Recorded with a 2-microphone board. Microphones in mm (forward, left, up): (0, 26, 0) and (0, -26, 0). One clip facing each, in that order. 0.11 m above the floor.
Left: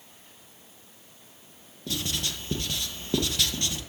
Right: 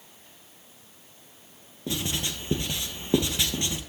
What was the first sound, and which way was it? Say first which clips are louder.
Writing: right 1 dB; 20° right (ahead or behind).